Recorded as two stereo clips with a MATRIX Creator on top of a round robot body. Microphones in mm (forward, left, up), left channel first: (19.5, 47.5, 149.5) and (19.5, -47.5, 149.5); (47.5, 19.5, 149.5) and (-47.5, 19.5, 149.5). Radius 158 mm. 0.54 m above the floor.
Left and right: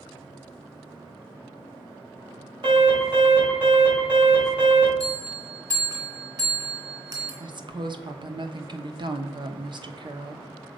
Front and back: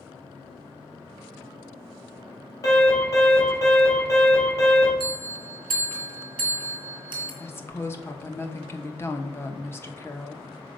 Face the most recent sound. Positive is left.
turn(degrees=-65)